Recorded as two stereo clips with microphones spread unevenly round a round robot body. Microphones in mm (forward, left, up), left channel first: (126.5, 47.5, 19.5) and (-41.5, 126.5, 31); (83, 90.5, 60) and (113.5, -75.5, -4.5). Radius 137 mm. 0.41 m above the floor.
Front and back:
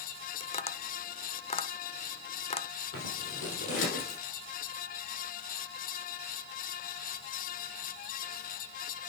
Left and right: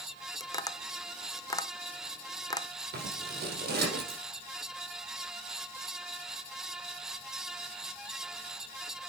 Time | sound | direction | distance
0.4 | tapping | 15° left | 0.9 m
2.9 | scissors | 55° right | 3.5 m